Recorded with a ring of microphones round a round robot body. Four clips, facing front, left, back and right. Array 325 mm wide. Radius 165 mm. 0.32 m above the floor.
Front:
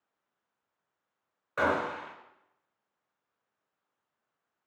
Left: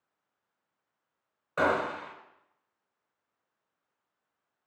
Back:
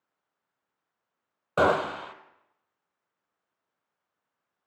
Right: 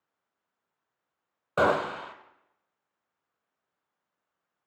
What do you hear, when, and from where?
1.6 s a gunshot: 150° right, 0.6 m